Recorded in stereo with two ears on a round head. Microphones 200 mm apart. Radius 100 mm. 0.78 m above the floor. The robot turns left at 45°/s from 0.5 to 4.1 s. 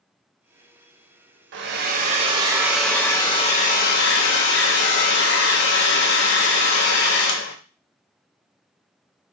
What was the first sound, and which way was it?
A hair dryer, 120° right.